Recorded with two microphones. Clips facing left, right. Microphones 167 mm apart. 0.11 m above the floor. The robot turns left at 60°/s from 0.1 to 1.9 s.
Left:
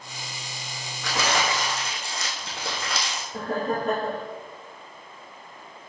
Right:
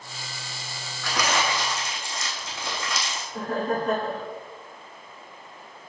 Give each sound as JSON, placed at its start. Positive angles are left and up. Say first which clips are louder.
{"t": 1.0, "sound": "crumpling", "louder": "even", "azimuth_deg": 165, "distance_m": 3.0}
{"t": 3.3, "sound": "laughter", "louder": "even", "side_deg": 45, "distance_m": 2.5}